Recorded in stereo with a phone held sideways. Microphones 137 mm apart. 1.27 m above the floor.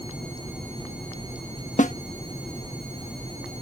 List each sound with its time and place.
1.8 s a snare drum: 70° left (ahead or behind)